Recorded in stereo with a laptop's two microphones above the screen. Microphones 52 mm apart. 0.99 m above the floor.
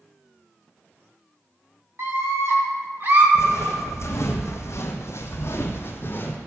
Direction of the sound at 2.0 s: 60° right (ahead or behind).